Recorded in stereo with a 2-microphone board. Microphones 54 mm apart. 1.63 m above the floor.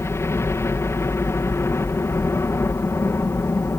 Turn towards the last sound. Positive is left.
turn(degrees=55)  # may be behind; listen again after turning